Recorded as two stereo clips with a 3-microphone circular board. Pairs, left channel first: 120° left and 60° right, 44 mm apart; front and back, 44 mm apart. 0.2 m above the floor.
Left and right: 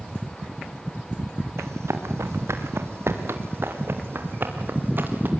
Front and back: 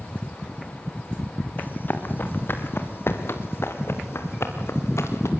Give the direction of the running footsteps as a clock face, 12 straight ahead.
2 o'clock.